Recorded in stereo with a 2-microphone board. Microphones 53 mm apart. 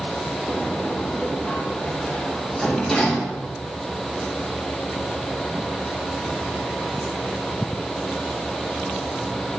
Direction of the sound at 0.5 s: 10° left (ahead or behind).